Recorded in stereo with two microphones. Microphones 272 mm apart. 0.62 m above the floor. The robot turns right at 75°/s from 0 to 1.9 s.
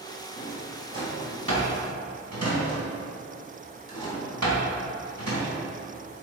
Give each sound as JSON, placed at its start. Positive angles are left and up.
{"t": 0.4, "sound": "a drawer", "side_deg": 25, "distance_m": 3.0}